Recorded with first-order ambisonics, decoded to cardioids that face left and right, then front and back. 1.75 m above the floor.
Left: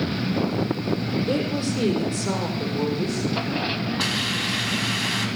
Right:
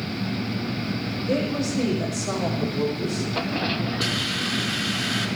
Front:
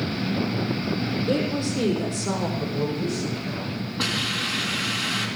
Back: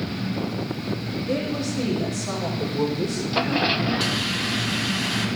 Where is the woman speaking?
55° left, 6.5 m.